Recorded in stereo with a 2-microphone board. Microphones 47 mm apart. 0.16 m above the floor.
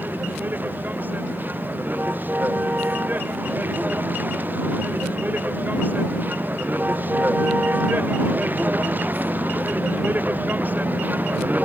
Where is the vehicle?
40° right (ahead or behind).